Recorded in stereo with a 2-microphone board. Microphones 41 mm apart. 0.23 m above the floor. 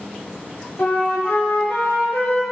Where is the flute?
45° left (ahead or behind), 1.2 m.